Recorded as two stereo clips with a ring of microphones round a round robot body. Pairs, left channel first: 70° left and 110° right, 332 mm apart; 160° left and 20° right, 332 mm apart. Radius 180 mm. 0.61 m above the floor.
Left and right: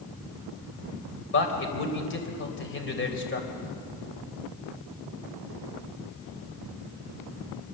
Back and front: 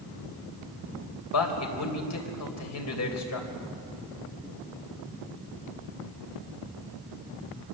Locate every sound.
1.3 s a man speaking: 120° left, 3.5 m